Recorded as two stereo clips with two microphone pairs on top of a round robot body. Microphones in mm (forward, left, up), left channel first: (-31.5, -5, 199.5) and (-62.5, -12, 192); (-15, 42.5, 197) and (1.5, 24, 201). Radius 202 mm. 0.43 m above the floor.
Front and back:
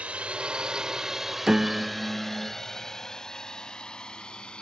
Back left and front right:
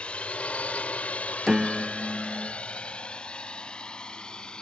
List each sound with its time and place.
0.0 s a drone: 160° left; by 4.6 s 75° left
1.5 s a piano: 135° right